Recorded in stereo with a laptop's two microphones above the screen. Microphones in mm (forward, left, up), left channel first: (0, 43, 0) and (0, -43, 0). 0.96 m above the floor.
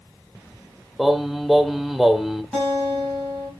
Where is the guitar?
10° left (ahead or behind), 3.5 m.